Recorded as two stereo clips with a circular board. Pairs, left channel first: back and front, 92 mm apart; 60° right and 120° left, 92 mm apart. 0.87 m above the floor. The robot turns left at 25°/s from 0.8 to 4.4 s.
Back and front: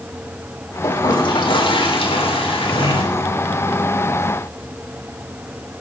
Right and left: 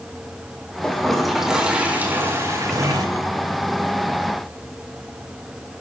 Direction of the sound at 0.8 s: 140° right.